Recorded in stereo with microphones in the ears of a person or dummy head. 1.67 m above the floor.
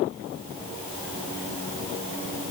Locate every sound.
Only background noise.